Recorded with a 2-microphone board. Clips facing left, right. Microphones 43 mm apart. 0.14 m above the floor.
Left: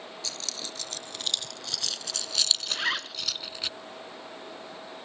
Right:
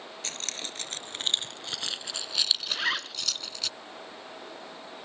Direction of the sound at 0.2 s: 45° right (ahead or behind).